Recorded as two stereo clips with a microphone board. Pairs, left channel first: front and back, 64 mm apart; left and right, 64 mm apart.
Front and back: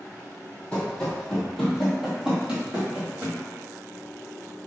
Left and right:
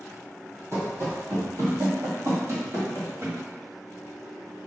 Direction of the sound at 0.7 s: 65° right.